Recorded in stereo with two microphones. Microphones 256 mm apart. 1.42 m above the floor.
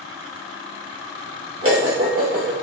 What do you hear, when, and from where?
1.6 s dishes clattering: 55° right (ahead or behind), 1.3 m